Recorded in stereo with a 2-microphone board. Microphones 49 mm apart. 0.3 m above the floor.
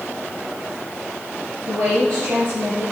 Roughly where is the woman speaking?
Right.